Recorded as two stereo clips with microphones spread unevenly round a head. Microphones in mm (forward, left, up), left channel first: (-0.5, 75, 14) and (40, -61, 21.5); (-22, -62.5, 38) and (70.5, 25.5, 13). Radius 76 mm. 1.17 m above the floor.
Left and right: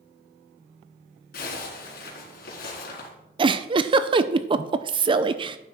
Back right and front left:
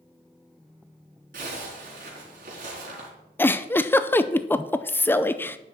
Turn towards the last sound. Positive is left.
turn(degrees=-55)